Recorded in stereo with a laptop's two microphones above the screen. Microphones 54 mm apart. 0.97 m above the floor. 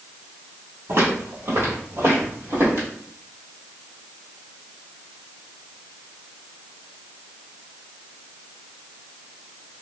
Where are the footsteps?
50° right (ahead or behind), 1.5 m; by 2.9 s 40° right (ahead or behind), 1.6 m.